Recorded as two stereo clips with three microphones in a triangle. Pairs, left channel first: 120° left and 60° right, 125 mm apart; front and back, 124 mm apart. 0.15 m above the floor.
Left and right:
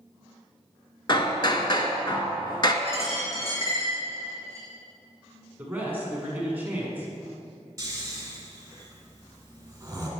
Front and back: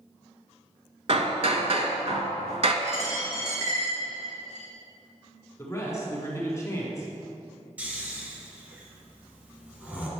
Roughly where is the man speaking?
Ahead.